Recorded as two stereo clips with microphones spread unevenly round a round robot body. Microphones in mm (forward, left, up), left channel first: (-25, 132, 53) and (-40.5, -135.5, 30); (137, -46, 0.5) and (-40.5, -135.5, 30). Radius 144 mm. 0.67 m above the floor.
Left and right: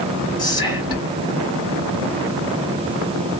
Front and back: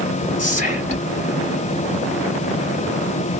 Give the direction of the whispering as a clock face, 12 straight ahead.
12 o'clock.